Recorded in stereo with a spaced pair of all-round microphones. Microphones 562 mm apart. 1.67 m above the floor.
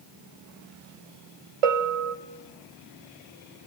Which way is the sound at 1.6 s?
75° right (ahead or behind).